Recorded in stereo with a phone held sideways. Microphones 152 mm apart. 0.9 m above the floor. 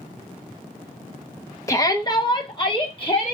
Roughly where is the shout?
Centre.